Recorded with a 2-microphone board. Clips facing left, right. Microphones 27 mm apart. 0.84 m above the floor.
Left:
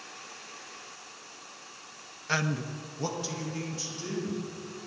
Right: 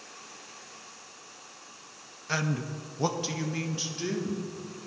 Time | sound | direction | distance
2.3 | a man speaking | 15° left (ahead or behind) | 0.5 m